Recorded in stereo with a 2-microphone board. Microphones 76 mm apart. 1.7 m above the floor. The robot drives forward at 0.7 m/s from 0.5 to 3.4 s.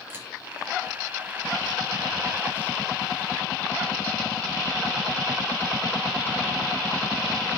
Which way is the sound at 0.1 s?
30° right (ahead or behind).